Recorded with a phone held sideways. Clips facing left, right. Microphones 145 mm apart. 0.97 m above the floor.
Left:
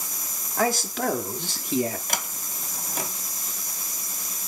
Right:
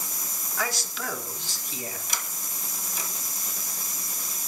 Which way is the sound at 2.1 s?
60° left (ahead or behind).